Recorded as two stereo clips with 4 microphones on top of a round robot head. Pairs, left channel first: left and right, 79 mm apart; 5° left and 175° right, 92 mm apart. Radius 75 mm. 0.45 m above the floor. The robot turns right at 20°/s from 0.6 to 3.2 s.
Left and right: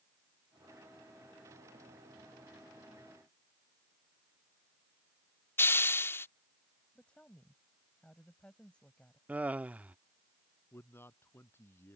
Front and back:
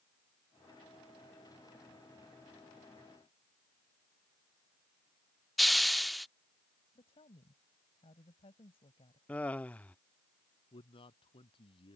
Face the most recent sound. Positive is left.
turn(degrees=30)